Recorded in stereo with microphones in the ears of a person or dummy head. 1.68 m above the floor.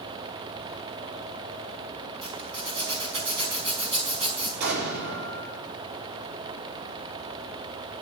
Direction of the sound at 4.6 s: 75° right (ahead or behind).